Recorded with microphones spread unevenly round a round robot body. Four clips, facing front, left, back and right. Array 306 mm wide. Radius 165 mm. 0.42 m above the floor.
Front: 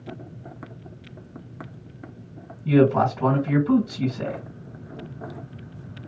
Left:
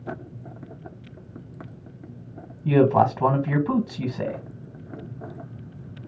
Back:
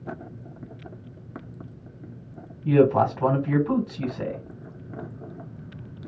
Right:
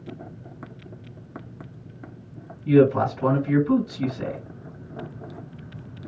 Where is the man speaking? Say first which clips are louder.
Even, even; 90° left, 3 m.